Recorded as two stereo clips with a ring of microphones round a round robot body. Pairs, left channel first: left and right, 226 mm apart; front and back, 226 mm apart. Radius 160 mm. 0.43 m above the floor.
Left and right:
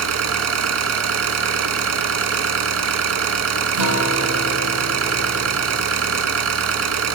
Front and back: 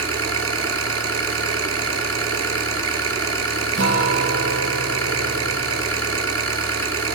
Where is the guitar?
110° right, 3.5 m.